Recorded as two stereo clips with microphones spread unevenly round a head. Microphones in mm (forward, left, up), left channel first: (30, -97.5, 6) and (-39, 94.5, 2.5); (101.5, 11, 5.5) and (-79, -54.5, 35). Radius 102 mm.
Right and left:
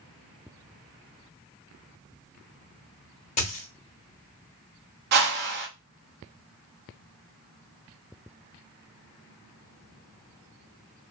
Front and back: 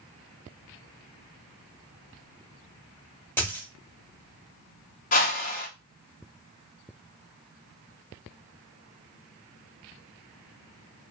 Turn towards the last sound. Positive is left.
turn(degrees=75)